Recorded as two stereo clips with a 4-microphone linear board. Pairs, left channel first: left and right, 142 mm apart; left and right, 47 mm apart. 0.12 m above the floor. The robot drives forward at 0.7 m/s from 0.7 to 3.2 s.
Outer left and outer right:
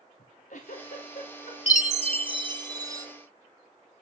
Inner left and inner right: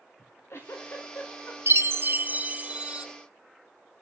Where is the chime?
60° right (ahead or behind), 0.5 m; by 3.1 s 25° right (ahead or behind), 1.1 m.